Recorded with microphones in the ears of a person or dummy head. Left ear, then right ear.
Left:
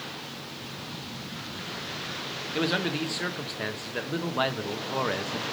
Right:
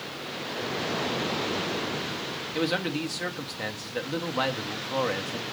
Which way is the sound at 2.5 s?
5° left (ahead or behind).